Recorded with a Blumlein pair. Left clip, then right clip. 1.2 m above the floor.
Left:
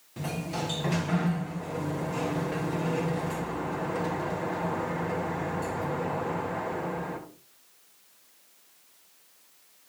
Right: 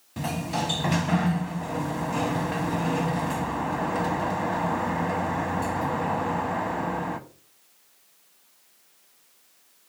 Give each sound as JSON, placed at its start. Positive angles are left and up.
{"t": 0.2, "sound": "a sliding door", "azimuth_deg": -20, "distance_m": 1.1}